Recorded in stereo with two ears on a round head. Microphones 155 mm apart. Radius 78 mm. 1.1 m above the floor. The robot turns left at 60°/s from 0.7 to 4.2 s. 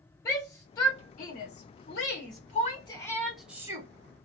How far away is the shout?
About 3 m.